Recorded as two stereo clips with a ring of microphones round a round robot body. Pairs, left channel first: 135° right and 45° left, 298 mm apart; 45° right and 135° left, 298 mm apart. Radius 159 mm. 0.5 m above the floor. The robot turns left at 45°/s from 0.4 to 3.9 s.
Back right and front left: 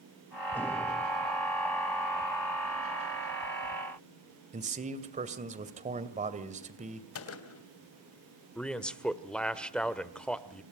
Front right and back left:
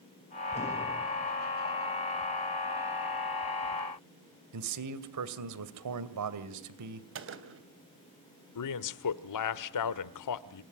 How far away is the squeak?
I don't hear a squeak.